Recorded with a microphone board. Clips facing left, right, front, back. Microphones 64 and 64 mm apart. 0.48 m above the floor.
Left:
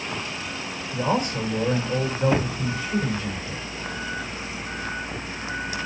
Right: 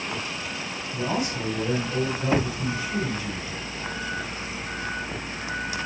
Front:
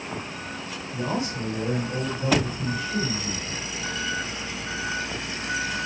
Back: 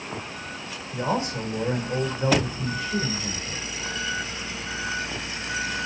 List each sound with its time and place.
0.9 s a man speaking: 135° left, 4 m